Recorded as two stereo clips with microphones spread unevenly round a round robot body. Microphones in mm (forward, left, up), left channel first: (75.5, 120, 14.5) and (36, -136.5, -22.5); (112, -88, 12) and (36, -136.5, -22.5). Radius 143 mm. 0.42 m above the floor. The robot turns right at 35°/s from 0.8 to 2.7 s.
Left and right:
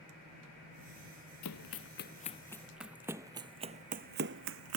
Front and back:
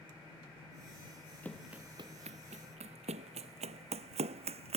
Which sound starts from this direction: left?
Running footsteps, at 1.4 s.